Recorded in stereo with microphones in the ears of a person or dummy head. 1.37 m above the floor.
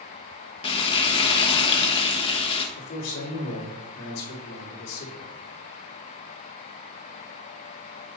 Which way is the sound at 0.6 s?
35° left (ahead or behind).